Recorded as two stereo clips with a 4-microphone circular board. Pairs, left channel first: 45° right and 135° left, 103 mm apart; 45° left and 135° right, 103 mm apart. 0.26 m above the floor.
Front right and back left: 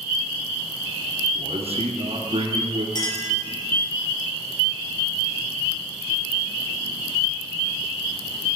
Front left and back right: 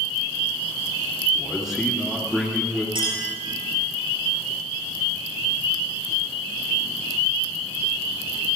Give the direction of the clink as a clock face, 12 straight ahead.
3 o'clock.